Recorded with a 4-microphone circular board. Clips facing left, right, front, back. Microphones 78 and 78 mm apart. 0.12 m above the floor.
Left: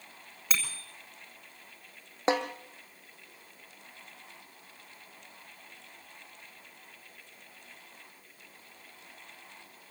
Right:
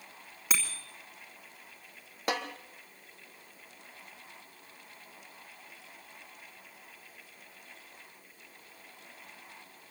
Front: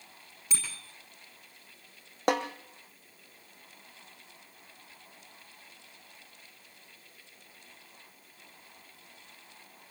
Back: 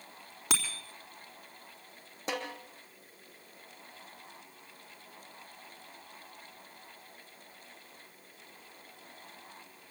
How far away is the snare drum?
About 2.5 m.